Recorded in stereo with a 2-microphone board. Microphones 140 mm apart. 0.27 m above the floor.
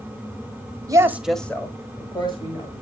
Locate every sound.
0.9 s a woman speaking: 25° right (ahead or behind), 1.1 m; by 2.7 s 40° left (ahead or behind), 2.5 m